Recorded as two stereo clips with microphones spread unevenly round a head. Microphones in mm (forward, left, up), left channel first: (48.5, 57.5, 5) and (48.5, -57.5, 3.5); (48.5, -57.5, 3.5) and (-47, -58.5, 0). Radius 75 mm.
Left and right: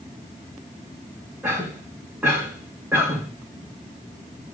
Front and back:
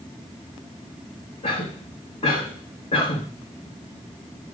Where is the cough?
10° right, 2 m.